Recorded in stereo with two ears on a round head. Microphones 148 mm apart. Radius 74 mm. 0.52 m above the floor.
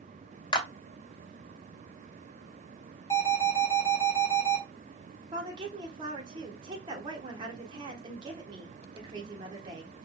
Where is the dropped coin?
No dropped coin in this recording.